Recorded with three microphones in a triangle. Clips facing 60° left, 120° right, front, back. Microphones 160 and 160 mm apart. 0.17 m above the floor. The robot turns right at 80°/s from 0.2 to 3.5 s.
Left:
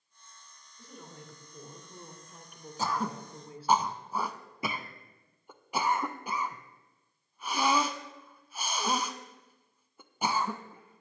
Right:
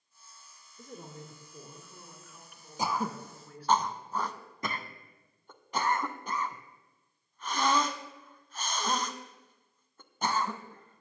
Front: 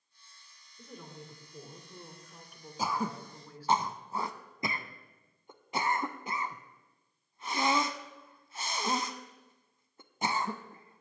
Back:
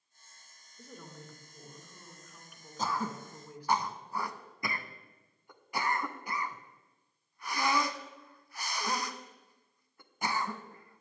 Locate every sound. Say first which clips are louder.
0.8 s a woman speaking: right 4 dB, front 1 dB; 105° right, 2 m; by 3.8 s 115° left, 2 m
2.8 s throat clearing: even, front 1 dB; 65° right, 0.6 m; by 11.0 s 5° right, 0.6 m